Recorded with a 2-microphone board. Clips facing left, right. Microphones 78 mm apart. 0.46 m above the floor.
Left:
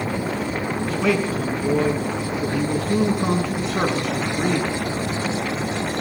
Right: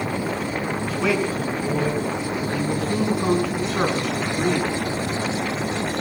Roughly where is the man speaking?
Centre.